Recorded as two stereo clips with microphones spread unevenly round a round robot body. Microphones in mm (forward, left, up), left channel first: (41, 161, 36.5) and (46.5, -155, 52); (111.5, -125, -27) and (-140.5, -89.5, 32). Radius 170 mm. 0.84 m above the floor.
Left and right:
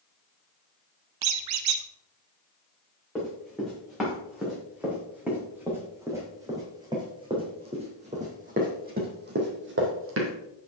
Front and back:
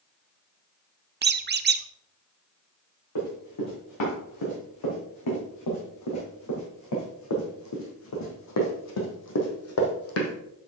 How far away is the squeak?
About 0.7 m.